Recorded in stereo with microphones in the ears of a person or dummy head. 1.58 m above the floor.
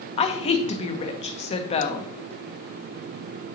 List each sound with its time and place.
0.2 s a woman speaking: 25° left (ahead or behind), 1.0 m